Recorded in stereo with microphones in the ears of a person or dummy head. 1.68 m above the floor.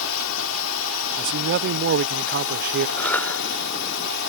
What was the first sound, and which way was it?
A drone, 75° left (ahead or behind).